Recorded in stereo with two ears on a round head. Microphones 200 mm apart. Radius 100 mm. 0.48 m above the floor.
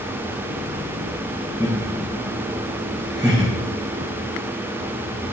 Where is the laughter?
5° right (ahead or behind), 2.0 m.